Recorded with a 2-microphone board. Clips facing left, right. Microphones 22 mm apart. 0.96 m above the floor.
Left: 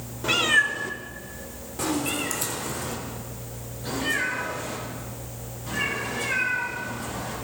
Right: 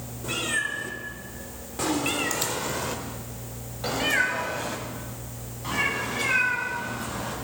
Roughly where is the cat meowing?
Left.